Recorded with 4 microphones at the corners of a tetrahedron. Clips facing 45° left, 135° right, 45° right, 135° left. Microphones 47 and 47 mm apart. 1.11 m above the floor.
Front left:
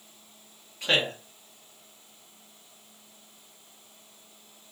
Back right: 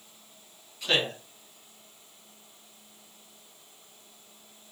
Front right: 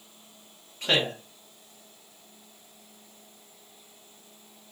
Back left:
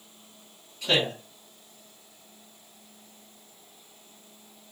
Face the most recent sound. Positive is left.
turn(degrees=-10)